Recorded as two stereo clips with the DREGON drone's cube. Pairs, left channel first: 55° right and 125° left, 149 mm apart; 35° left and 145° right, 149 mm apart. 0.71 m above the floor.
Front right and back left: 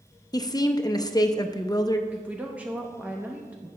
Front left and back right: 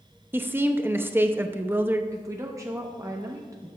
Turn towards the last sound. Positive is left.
turn(degrees=-170)